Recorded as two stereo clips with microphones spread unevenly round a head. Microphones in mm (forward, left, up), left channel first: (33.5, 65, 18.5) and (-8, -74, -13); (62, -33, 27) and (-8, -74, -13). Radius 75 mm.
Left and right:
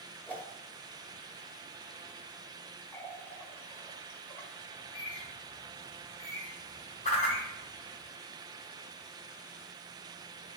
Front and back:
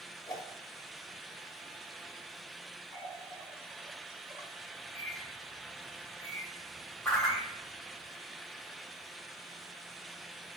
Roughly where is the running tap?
Behind left.